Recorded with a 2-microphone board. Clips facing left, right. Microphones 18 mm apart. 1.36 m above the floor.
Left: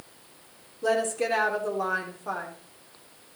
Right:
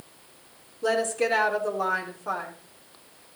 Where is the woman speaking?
10° right (ahead or behind), 3.5 m.